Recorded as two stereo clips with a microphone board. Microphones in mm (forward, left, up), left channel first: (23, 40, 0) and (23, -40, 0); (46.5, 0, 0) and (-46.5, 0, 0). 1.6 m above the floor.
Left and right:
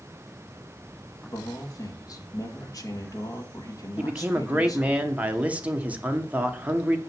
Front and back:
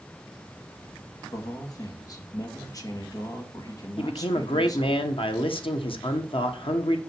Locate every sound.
1.3 s a man speaking: 50° left, 2 m
4.0 s a man speaking: 20° right, 1.5 m